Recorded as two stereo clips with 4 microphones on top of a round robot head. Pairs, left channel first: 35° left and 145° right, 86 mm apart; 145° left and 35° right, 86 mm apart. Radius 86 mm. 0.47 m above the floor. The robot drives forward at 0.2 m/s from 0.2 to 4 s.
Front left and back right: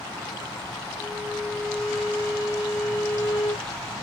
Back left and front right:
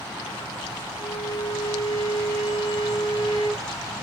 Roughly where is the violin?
Behind left.